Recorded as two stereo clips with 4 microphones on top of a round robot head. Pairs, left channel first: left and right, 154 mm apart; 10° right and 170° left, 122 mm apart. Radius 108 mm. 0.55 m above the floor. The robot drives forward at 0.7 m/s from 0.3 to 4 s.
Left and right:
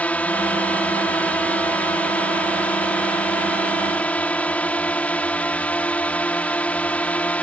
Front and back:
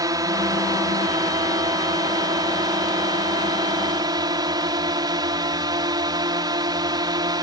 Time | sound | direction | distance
0.0 | a drone | 160° left | ?